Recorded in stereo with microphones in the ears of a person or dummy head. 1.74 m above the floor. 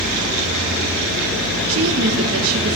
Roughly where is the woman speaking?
Right.